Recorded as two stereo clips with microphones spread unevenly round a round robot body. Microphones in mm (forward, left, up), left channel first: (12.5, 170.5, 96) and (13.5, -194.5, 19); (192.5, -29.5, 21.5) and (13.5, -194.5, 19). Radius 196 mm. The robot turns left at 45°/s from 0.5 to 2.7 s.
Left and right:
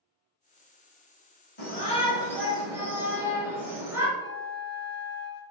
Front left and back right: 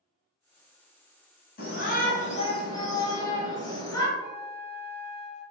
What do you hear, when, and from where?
1.6 s a shout: 25° left, 1.0 m; by 4.1 s 25° right, 1.0 m
4.2 s a flute: 155° left, 0.6 m